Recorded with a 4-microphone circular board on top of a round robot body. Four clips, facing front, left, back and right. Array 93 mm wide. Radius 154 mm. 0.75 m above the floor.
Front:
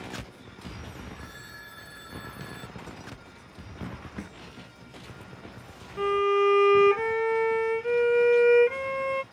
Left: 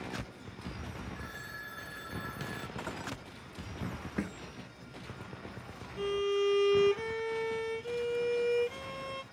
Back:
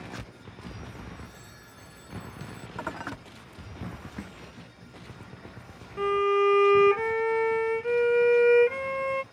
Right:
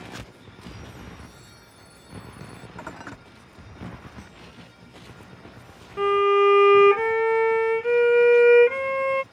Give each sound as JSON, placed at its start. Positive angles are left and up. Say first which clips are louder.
{"t": 1.1, "sound": "a phone ringing", "louder": "left 2 dB, front 2 dB", "azimuth_deg": 65}
{"t": 2.8, "sound": "dishes clattering", "louder": "right 5 dB, back 8 dB", "azimuth_deg": -165}
{"t": 4.2, "sound": "a snare drum", "louder": "left 8 dB, front 1 dB", "azimuth_deg": 85}
{"t": 6.0, "sound": "a violin", "louder": "right 12 dB, even", "azimuth_deg": -90}